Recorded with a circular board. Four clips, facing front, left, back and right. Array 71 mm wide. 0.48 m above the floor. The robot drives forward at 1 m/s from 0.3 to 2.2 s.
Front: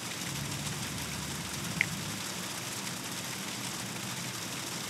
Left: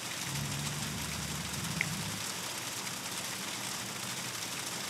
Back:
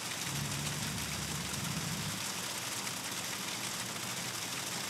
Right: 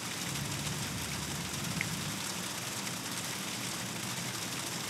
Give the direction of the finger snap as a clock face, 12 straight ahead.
12 o'clock.